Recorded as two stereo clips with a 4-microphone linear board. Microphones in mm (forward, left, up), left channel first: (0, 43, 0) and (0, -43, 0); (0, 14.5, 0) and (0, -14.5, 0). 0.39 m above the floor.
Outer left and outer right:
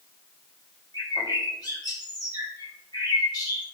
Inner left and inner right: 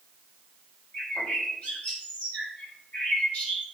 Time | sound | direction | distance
0.9 | a bird | 60° left (ahead or behind) | 2.5 m